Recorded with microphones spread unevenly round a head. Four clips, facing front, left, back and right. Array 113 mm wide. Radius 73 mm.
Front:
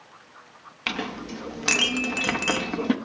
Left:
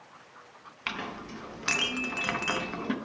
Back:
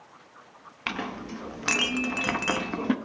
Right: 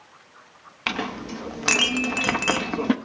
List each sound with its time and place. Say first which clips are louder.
0.9 s a clink: right 8 dB, front 2 dB; 115° right, 0.6 m